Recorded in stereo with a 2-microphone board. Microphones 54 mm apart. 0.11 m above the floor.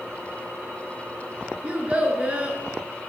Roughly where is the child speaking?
Right.